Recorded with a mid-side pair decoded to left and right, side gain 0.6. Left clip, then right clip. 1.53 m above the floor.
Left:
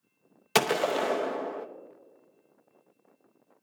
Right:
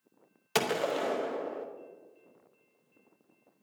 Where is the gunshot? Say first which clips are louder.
Left 4 dB; 25° left, 0.7 m.